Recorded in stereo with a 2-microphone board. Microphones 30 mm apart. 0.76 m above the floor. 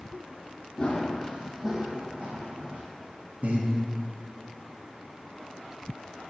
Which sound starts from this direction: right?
Breathing, at 3.4 s.